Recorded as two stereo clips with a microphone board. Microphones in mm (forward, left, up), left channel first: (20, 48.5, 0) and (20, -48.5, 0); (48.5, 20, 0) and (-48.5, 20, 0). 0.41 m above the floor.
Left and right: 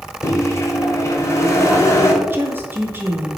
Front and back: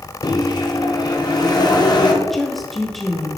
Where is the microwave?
35° left, 1.0 m.